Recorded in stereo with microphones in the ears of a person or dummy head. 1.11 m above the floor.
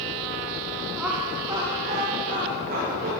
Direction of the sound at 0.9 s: 5° right (ahead or behind).